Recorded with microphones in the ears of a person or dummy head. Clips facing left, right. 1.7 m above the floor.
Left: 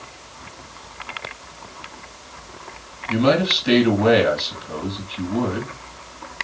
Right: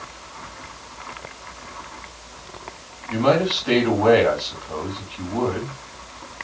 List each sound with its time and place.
3.1 s a man speaking: 30° left (ahead or behind), 2.0 m